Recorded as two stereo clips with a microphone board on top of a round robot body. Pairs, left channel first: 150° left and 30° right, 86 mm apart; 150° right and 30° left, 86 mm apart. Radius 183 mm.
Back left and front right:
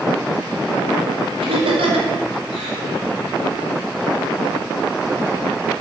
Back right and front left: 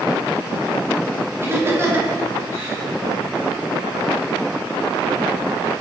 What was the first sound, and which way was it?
Laughter, 30° right.